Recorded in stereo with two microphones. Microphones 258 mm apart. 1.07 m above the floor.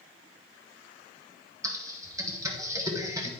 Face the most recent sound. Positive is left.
turn(degrees=-10)  # may be behind; listen again after turning